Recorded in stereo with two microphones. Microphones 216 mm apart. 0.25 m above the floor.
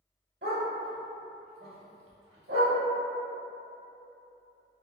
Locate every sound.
0.4 s a dog barking: 60° right (ahead or behind), 1.6 m